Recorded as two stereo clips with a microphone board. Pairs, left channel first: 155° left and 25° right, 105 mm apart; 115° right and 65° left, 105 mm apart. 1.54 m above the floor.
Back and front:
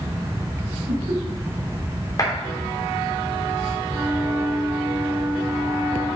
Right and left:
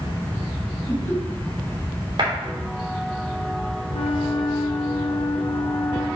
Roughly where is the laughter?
Ahead right.